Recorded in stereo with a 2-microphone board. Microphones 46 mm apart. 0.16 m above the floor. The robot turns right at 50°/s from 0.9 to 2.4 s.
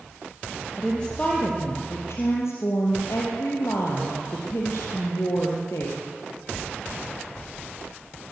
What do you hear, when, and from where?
0.8 s a woman speaking: 10° left, 4 m; by 6.0 s 85° left, 4 m